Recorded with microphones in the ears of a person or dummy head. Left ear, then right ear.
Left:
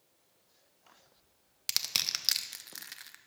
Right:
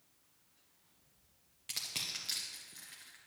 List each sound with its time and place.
1.7 s crushing: 45° left (ahead or behind), 0.5 m